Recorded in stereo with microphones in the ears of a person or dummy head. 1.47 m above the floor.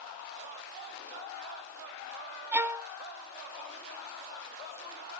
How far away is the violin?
About 0.6 m.